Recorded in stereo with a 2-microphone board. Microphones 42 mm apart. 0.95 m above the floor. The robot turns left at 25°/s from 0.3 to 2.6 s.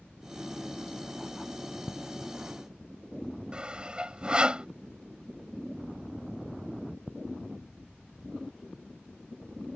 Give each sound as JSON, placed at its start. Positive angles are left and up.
{"t": 3.5, "sound": "sawing", "side_deg": -25}